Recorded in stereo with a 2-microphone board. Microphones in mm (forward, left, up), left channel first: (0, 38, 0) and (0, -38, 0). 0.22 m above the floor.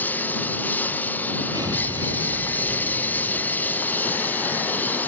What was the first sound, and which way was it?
A lawn mower, 20° left (ahead or behind).